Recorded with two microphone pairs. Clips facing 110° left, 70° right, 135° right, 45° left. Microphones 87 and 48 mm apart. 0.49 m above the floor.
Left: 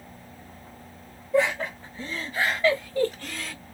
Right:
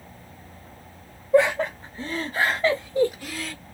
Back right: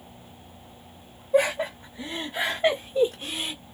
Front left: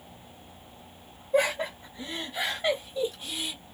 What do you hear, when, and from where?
1.3 s laughter: 55° right, 1.8 m; by 3.5 s 165° right, 1.2 m